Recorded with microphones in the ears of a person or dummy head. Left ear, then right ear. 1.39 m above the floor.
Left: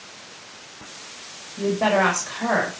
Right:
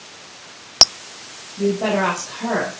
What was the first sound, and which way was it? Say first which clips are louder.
A woman speaking: even; 70° left (ahead or behind).